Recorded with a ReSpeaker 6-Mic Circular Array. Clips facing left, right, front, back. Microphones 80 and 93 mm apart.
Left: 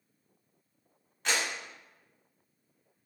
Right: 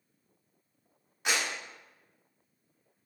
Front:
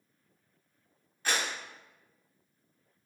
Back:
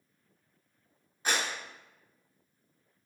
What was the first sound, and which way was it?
A clap, 150° right.